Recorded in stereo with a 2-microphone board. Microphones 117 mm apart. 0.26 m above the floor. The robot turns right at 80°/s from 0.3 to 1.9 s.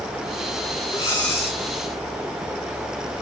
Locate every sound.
0.9 s breathing: 135° left, 3 m; by 1.6 s 170° right, 3 m